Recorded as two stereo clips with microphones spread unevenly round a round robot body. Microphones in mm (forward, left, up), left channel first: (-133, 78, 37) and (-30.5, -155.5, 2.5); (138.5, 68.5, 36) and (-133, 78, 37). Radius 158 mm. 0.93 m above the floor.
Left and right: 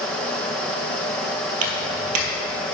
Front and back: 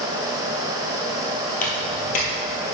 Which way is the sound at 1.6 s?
60° right.